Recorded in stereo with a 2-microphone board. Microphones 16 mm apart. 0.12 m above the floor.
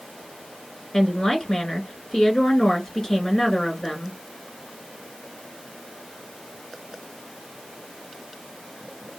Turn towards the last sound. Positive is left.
turn(degrees=40)  # may be behind; listen again after turning